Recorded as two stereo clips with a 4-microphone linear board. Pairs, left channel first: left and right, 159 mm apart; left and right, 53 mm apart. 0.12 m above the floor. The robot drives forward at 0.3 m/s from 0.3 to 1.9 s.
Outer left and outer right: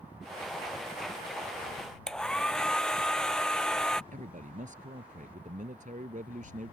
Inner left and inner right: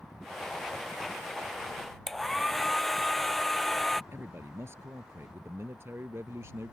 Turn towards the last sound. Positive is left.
turn(degrees=-55)  # may be behind; listen again after turning